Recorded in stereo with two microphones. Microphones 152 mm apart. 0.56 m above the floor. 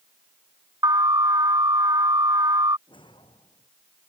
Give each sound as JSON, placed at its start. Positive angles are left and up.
{"t": 0.8, "sound": "an alarm", "side_deg": -25}
{"t": 2.9, "sound": "a whoosh", "side_deg": 35}